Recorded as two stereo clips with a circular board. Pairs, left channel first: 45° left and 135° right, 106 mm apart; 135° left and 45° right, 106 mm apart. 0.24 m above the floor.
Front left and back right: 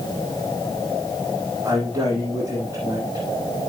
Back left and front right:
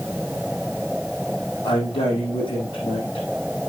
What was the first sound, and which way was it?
A man speaking, 165° left.